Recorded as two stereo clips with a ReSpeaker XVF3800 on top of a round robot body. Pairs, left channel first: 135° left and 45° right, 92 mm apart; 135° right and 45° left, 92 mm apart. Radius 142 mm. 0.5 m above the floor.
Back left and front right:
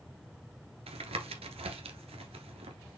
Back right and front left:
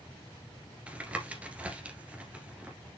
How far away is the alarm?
I don't hear an alarm.